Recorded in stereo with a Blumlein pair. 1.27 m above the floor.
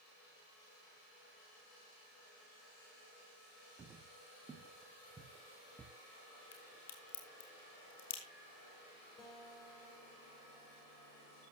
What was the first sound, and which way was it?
Footsteps, 20° right.